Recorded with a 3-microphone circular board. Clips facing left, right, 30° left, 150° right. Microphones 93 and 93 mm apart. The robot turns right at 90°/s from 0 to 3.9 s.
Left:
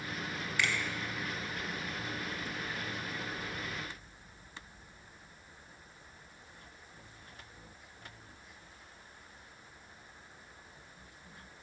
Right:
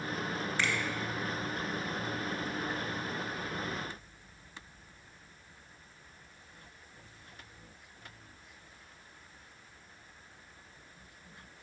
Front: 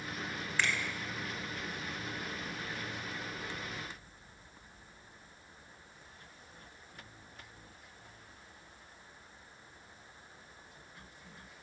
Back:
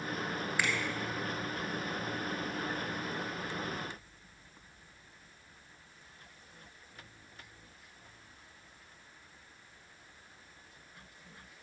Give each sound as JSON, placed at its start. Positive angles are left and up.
{"t": 0.6, "sound": "a finger snap", "azimuth_deg": -80, "distance_m": 1.3}